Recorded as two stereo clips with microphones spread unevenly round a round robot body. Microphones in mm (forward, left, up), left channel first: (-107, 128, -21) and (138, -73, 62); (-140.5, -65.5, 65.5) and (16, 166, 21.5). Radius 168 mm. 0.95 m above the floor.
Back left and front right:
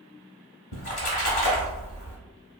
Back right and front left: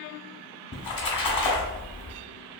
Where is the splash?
150° right, 0.8 m.